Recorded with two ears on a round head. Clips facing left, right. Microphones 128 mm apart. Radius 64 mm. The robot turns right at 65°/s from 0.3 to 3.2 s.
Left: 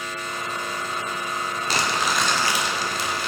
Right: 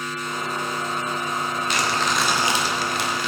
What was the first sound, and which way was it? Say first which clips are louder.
Crumpling: left 1 dB; 145° left.